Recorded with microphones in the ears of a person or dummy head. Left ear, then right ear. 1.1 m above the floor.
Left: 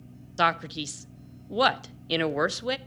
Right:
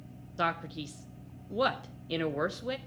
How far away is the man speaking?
About 0.5 m.